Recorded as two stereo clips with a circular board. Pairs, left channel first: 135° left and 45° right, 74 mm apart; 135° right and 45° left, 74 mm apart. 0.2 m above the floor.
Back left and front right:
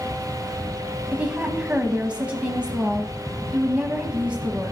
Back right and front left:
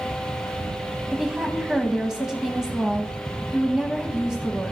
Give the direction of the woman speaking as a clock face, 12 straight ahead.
1 o'clock.